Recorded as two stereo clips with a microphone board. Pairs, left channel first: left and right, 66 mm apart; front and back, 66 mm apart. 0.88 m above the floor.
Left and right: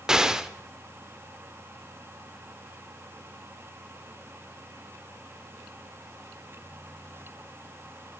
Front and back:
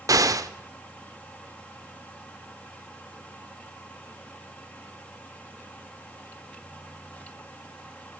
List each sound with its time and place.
0.1 s an explosion: 170° right, 0.7 m